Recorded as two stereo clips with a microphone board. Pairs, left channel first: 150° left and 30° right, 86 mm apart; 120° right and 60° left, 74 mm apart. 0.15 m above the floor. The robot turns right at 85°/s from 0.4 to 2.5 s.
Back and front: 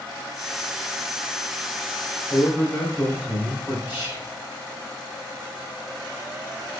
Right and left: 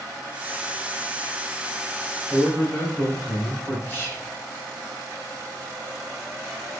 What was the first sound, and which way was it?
A man speaking, 150° right.